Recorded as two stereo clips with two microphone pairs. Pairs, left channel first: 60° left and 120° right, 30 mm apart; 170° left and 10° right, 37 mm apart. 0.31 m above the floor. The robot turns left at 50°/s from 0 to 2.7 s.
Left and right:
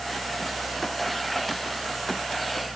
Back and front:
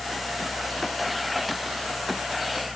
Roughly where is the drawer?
I don't hear a drawer.